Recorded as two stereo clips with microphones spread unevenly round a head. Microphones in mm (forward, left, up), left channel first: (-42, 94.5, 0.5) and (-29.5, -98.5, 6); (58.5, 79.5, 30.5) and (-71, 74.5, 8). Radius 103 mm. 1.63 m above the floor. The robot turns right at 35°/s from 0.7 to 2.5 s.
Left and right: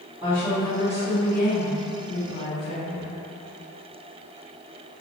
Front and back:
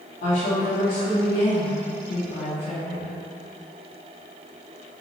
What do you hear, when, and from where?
0.2 s a woman speaking: 15° right, 1.4 m; by 3.1 s 45° left, 1.4 m